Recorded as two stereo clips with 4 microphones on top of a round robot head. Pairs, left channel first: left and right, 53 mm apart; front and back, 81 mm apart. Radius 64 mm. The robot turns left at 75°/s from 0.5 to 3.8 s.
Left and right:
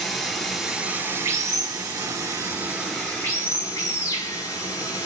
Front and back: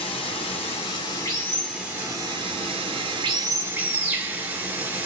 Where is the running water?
5° left, 2.5 m; by 5.1 s 115° left, 2.5 m.